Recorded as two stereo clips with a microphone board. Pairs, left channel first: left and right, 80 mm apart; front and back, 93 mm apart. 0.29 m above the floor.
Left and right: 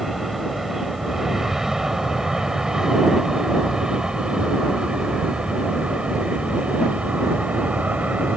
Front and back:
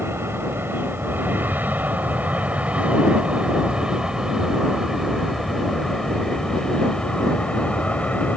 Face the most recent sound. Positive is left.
turn(degrees=-50)